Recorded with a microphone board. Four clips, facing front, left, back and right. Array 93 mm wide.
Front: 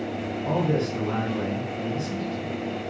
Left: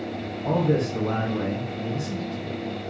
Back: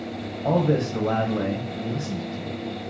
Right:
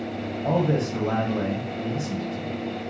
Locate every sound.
0.5 s a man speaking: 170° right, 1.0 m